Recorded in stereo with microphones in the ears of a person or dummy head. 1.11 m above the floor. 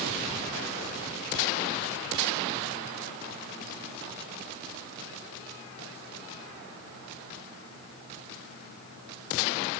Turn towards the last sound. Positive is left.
No sound to turn to.